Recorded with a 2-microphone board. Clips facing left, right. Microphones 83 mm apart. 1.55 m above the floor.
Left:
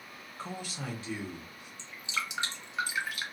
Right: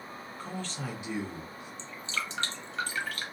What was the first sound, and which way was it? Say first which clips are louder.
A man speaking: right 1 dB; 30° left (ahead or behind).